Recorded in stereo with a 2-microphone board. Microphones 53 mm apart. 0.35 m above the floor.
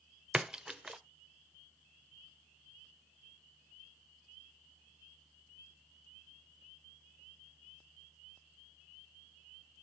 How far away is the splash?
About 0.7 m.